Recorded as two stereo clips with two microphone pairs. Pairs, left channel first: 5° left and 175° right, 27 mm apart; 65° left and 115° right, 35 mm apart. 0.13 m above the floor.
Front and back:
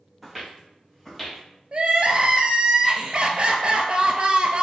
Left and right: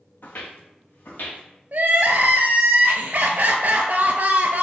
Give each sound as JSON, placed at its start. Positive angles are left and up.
{"t": 0.2, "sound": "footsteps", "azimuth_deg": 90, "distance_m": 0.5}
{"t": 1.7, "sound": "crying", "azimuth_deg": -140, "distance_m": 0.6}